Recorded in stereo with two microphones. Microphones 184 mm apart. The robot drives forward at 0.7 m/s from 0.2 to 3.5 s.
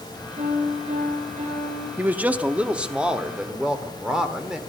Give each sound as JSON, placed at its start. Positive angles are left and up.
{"t": 0.4, "sound": "a piano", "side_deg": -45, "distance_m": 6.0}
{"t": 2.0, "sound": "a man speaking", "side_deg": -10, "distance_m": 0.6}